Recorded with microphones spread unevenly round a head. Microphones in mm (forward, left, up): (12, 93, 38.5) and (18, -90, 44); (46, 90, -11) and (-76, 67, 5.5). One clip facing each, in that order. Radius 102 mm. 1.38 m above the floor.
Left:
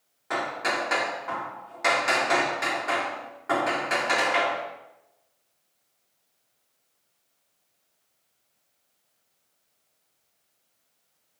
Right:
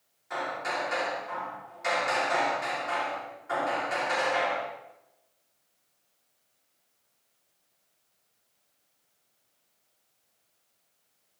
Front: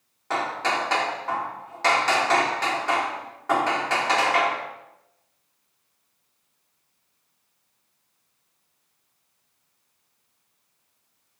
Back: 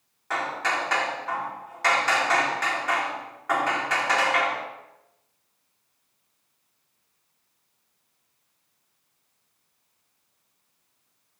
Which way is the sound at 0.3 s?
70° left.